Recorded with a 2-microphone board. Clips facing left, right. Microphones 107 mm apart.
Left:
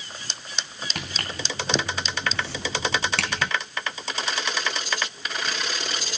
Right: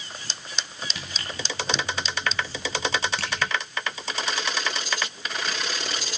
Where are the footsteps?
60° left (ahead or behind), 2.5 m; by 3.5 s 75° left (ahead or behind), 1.2 m.